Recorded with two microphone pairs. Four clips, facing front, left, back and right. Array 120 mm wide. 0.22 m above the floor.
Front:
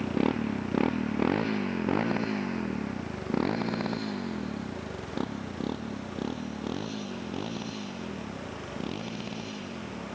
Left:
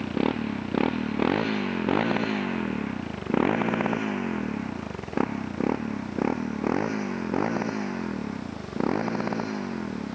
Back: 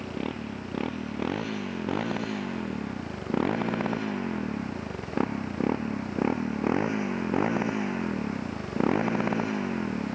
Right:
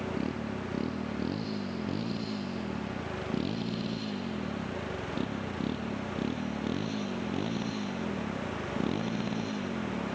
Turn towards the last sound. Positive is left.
turn(degrees=140)